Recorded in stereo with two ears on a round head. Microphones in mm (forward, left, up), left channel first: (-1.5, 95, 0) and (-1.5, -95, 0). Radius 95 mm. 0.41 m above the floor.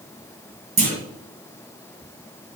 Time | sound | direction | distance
0.8 | a clunk | 35° right (ahead or behind) | 5 m